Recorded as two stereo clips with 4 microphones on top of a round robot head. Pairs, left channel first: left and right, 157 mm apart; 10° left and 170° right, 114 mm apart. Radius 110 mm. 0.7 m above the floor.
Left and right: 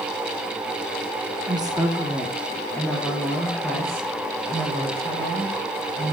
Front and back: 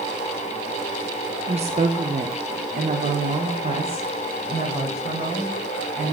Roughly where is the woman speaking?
Behind right.